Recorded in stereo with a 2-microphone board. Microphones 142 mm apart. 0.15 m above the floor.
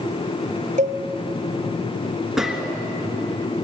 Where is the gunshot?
5° right (ahead or behind), 1.8 m.